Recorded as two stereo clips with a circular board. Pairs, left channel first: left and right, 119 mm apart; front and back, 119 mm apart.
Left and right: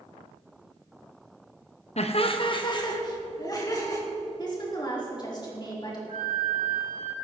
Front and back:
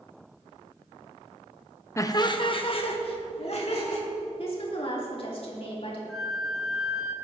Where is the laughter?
65° left, 0.9 m; by 4.0 s 30° left, 3.5 m.